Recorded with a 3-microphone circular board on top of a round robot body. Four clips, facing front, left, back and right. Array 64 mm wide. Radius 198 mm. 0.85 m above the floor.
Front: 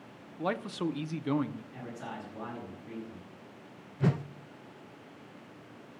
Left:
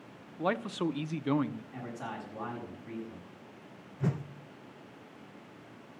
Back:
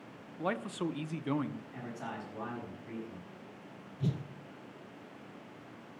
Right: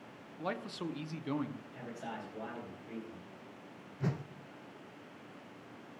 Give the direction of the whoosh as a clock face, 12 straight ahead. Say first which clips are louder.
Left 4 dB, front 6 dB; 12 o'clock.